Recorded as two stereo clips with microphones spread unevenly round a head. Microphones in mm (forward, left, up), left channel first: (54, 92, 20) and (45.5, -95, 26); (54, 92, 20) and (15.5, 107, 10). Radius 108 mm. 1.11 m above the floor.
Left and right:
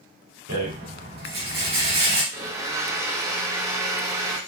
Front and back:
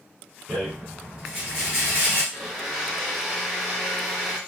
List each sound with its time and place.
0.5 s a rattle: 115° right, 1.2 m
2.3 s a blender: 155° right, 0.7 m